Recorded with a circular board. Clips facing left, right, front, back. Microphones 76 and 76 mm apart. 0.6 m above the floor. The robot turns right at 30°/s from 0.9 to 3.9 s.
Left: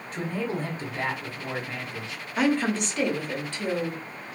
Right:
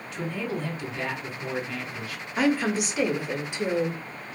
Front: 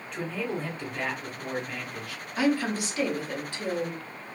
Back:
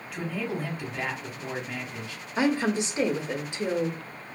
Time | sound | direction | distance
0.1 | a man speaking | 95° left | 0.8 m
2.4 | a woman speaking | 175° right | 0.6 m